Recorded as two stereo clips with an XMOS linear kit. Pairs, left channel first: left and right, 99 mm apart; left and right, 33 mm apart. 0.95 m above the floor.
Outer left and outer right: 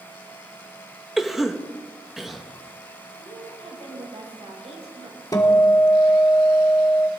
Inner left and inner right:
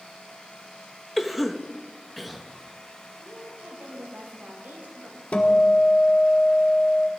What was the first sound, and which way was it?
A cough, 5° right (ahead or behind).